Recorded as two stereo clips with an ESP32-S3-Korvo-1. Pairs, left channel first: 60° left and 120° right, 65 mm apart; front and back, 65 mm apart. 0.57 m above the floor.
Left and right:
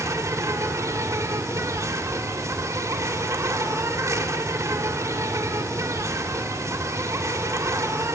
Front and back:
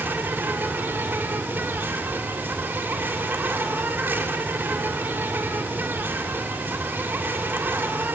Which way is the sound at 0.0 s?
130° right.